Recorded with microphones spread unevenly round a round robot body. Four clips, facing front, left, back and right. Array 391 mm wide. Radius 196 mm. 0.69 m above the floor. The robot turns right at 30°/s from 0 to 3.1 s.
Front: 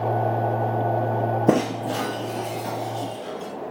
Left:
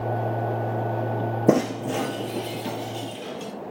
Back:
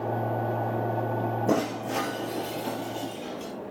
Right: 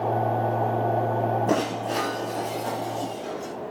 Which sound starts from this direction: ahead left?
Breaking glass, at 1.5 s.